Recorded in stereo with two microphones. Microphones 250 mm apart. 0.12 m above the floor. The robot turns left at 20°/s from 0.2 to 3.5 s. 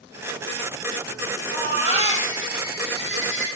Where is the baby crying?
165° left, 3.5 m; by 3.5 s 125° left, 3.5 m.